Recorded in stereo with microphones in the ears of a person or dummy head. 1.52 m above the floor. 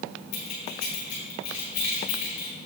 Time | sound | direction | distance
0.3 | keys jangling | 50° left (ahead or behind) | 2 m